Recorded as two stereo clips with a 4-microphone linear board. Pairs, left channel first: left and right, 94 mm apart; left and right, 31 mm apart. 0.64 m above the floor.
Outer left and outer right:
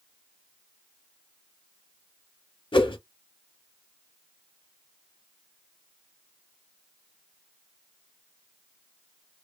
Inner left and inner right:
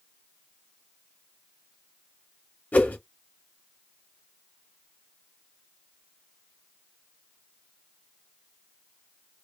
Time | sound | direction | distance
2.7 | a whoosh | 55° left (ahead or behind) | 0.6 m